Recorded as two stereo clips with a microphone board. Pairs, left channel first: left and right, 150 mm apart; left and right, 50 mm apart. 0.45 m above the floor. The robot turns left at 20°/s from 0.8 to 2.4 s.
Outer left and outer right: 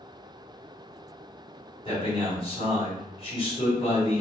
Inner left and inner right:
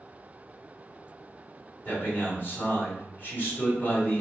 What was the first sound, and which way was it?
A man speaking, 35° left (ahead or behind).